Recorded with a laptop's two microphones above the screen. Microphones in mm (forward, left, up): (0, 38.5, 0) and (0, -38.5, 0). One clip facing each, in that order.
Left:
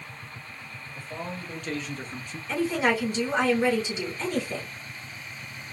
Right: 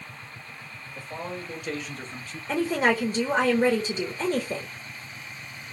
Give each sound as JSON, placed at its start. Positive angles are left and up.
{"t": 0.9, "sound": "a man speaking", "side_deg": -15, "distance_m": 2.0}
{"t": 2.5, "sound": "a woman speaking", "side_deg": -40, "distance_m": 1.1}